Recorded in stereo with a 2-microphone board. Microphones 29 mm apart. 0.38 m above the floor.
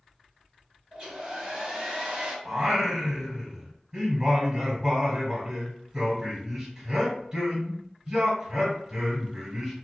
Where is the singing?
25° right (ahead or behind), 1.2 m.